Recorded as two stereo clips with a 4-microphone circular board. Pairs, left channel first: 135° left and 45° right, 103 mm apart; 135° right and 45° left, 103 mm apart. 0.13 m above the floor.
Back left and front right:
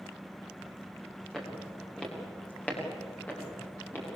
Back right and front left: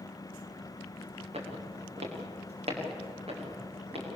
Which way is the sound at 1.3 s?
50° left.